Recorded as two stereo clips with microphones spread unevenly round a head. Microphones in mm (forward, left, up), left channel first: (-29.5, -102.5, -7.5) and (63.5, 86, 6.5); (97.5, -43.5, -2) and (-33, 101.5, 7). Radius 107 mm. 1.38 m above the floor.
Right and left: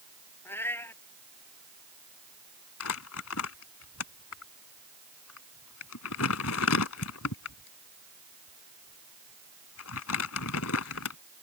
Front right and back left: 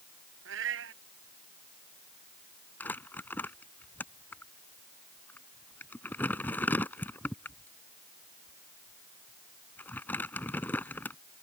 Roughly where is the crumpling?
Behind right.